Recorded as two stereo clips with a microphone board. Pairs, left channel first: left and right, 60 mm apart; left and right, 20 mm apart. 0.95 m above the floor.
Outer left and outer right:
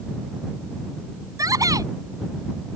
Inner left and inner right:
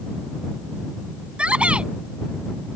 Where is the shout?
80° right.